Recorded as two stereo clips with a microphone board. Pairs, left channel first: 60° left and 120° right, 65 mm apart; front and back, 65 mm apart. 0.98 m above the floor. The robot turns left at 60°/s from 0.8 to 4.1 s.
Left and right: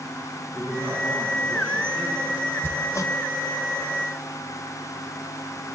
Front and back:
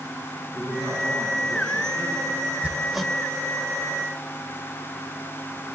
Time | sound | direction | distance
0.5 | a man speaking | 140° right | 8.5 m
2.6 | hammering | 110° left | 1.6 m